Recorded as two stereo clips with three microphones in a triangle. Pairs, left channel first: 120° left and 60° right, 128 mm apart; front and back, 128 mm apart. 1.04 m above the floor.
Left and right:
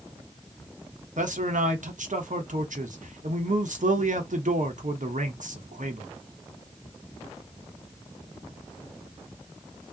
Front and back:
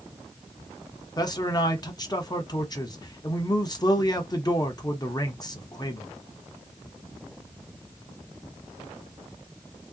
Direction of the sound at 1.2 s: 60° right.